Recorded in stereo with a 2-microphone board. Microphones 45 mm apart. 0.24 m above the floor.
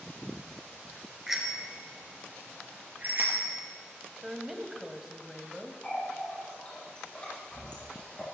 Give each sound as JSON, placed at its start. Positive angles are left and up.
{"t": 1.3, "sound": "a bicycle bell", "side_deg": -5, "distance_m": 2.5}
{"t": 4.2, "sound": "a woman speaking", "side_deg": -5, "distance_m": 1.4}
{"t": 5.8, "sound": "a running tap", "side_deg": 25, "distance_m": 5.5}